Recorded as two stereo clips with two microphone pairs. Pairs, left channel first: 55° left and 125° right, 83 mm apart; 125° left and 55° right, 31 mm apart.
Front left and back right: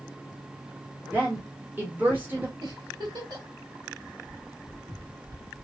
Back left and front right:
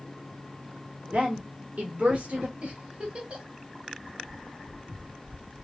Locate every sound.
1.1 s a woman speaking: 60° right, 1.5 m
2.6 s a giggle: 95° right, 2.5 m